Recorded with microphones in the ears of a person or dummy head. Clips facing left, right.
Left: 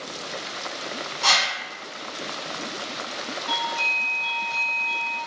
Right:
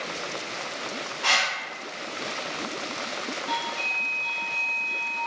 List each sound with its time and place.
1.2 s a whoosh: 65° left (ahead or behind), 0.9 m
3.5 s a doorbell: 25° right (ahead or behind), 1.3 m